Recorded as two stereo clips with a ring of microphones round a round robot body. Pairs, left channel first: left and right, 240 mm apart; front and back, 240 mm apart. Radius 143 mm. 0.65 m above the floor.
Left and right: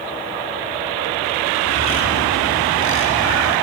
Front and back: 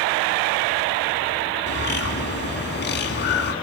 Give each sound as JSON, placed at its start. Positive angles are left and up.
{"t": 1.7, "sound": "a bird", "azimuth_deg": 45, "distance_m": 3.0}